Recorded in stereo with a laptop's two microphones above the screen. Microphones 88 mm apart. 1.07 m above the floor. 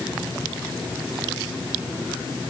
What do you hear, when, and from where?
Only background noise.